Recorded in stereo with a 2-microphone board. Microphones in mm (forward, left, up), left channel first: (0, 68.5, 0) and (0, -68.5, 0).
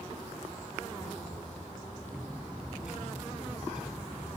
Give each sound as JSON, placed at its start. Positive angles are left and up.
{"t": 2.1, "sound": "a bird", "side_deg": -5}